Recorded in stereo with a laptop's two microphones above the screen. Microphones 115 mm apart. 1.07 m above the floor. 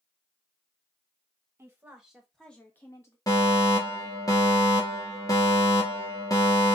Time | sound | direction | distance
1.6 | a woman speaking | 20° right (ahead or behind) | 1.9 m
3.3 | a fire alarm | 35° left (ahead or behind) | 1.5 m